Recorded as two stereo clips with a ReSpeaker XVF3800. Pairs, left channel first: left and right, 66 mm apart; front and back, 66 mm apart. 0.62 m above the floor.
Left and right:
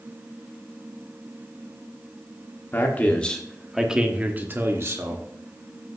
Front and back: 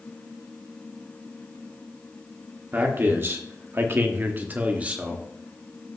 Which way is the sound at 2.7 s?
135° left.